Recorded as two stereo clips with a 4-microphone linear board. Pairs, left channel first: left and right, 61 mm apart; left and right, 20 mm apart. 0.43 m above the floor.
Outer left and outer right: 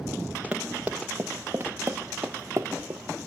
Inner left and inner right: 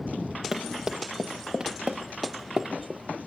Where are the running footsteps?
15° right (ahead or behind), 3.5 m; by 3.0 s 65° right (ahead or behind), 2.5 m.